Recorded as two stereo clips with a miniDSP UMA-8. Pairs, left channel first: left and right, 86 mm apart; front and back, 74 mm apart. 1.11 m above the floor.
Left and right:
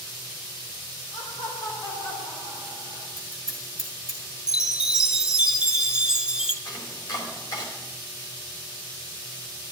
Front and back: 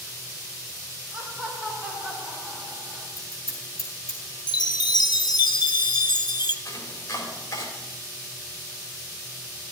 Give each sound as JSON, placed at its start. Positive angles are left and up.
{"t": 1.1, "sound": "laughter", "azimuth_deg": 95, "distance_m": 4.5}
{"t": 3.2, "sound": "scissors", "azimuth_deg": 45, "distance_m": 4.5}
{"t": 4.5, "sound": "a chime", "azimuth_deg": -10, "distance_m": 0.7}
{"t": 6.7, "sound": "chopping", "azimuth_deg": 50, "distance_m": 4.0}